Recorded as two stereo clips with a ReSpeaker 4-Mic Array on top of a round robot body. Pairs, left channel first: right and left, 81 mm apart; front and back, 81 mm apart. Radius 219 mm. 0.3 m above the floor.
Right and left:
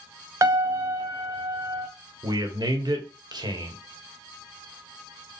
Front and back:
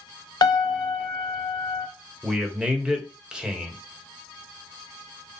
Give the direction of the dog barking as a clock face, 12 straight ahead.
No dog barking in this recording.